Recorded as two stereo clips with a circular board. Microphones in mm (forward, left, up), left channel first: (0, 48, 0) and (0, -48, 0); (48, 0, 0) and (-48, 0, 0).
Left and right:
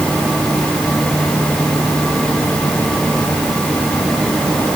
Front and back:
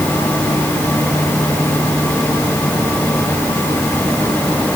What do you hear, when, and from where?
Only background noise.